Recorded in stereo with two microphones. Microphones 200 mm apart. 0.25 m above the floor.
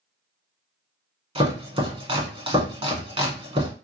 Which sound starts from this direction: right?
Chopping, at 1.4 s.